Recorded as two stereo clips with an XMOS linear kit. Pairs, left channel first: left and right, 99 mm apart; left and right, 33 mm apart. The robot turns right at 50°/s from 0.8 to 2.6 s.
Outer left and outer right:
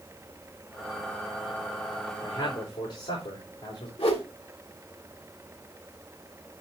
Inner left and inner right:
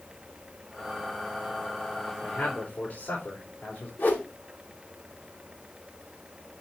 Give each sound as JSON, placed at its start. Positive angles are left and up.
{"t": 2.2, "sound": "a man speaking", "side_deg": 55, "distance_m": 4.0}
{"t": 4.0, "sound": "a whoosh", "side_deg": 80, "distance_m": 2.0}